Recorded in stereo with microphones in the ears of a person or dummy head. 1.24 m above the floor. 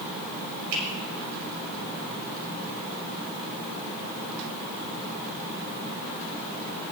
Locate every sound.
0.7 s a finger snap: 80° right, 6.5 m